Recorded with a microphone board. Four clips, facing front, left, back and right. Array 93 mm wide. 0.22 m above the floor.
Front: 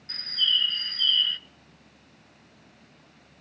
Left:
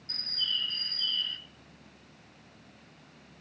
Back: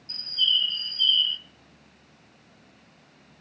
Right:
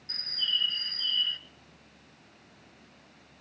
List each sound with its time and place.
0.1 s a bird: 10° right, 0.8 m